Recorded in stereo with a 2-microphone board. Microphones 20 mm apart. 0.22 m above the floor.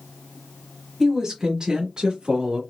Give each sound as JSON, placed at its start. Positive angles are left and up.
{"t": 1.0, "sound": "a woman speaking", "side_deg": -20, "distance_m": 1.1}